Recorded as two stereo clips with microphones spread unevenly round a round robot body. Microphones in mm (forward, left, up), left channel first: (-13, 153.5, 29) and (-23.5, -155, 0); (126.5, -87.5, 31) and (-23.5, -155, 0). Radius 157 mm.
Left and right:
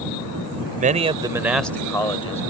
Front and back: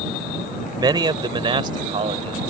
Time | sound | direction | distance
0.8 | a man speaking | 125° right | ?